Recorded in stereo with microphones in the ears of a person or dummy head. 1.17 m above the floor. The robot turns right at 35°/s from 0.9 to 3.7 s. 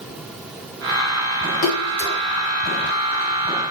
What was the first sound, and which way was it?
A splash, 65° left (ahead or behind).